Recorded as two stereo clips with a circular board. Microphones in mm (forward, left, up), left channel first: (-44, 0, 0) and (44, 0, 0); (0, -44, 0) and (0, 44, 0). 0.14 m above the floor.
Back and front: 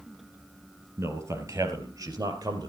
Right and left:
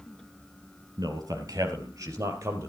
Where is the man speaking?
55° left, 3 m; by 2.7 s 35° left, 3.5 m.